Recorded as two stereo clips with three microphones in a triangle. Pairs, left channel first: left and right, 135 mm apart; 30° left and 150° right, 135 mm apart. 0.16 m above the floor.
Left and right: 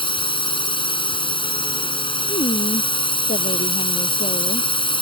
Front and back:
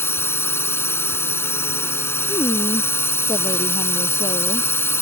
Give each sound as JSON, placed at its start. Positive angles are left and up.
{"t": 0.0, "sound": "a drone", "azimuth_deg": 90}
{"t": 2.3, "sound": "a woman speaking", "azimuth_deg": 90}